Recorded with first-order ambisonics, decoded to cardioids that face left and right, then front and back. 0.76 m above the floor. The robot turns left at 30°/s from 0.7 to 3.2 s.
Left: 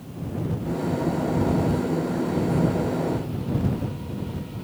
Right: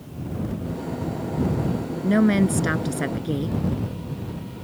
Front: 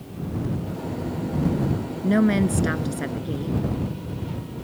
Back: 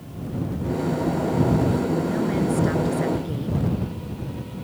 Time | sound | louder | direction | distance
2.0 | a woman speaking | right 4 dB, front 2 dB | 50° right | ?